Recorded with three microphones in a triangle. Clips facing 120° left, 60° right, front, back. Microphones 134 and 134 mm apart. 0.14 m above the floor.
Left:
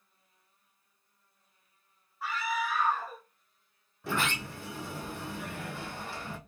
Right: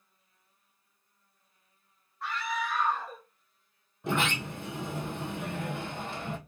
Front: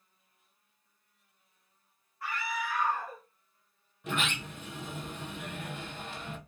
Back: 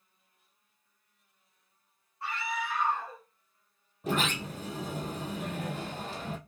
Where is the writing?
No writing in this recording.